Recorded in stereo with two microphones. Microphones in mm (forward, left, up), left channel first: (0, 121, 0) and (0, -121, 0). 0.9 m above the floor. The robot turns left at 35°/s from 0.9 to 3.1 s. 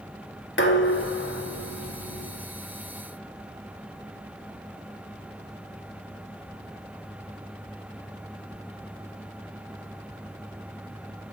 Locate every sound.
0.6 s dishes clattering: 125° left, 1.0 m; by 2.3 s 75° left, 1.0 m